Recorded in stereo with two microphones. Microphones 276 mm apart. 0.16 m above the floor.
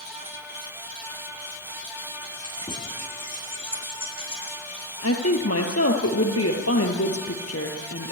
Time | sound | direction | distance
2.2 | keys jangling | 15° left (ahead or behind) | 10 m
5.0 | a woman speaking | 55° left (ahead or behind) | 4.5 m